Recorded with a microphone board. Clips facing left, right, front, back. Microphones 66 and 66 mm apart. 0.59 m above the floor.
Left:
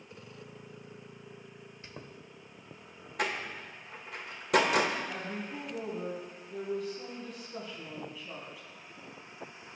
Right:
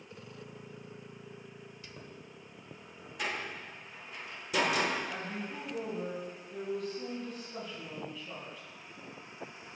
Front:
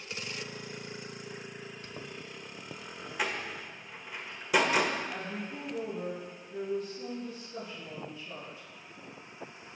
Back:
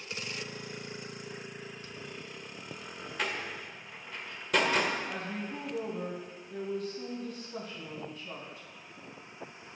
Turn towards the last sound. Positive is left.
turn(degrees=175)